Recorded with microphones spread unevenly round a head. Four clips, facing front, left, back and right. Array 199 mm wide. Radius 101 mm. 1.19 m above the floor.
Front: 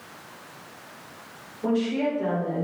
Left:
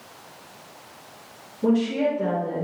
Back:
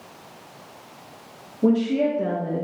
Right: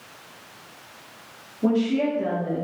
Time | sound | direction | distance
1.6 | a woman speaking | straight behind | 3 m